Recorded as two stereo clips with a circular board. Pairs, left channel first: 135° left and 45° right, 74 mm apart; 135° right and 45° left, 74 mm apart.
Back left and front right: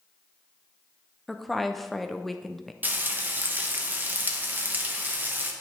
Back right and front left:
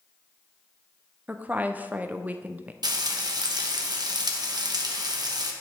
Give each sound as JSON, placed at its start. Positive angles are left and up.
{"t": 1.3, "sound": "a woman speaking", "azimuth_deg": 45, "distance_m": 0.5}
{"t": 2.8, "sound": "frying", "azimuth_deg": 20, "distance_m": 1.0}